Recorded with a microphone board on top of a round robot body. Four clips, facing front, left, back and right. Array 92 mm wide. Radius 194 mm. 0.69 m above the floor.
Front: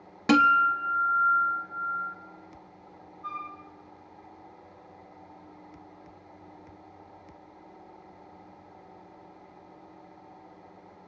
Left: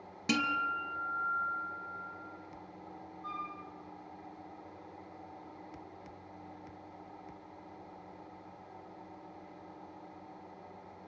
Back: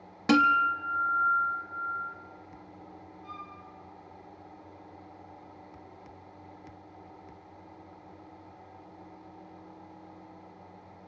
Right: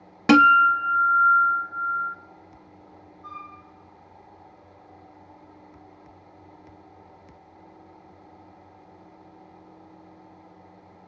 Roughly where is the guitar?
Right.